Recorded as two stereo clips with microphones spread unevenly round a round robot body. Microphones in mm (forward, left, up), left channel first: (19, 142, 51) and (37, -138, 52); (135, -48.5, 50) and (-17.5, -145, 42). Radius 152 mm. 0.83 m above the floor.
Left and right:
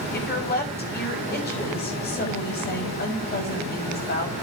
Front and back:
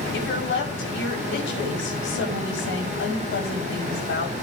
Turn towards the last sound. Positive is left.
turn(degrees=40)